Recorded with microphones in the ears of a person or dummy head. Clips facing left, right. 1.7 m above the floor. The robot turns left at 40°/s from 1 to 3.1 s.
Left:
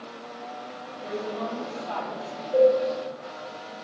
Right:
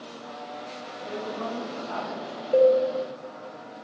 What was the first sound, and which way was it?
A woman speaking, 130° left.